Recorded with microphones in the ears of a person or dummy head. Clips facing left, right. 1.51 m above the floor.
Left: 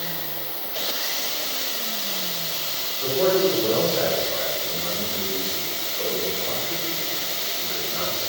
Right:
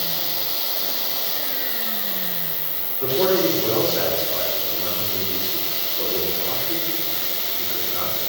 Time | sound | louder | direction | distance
0.0 | an insect | right 2 dB | 10° right (ahead or behind) | 0.7 m
3.0 | a man speaking | even | 45° right (ahead or behind) | 3.5 m